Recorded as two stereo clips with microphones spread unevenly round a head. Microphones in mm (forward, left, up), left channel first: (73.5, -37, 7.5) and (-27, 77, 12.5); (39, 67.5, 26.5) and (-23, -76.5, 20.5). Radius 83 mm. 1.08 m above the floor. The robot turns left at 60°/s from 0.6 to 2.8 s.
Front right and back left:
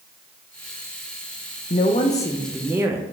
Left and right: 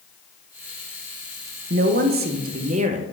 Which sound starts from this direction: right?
A woman speaking, at 1.7 s.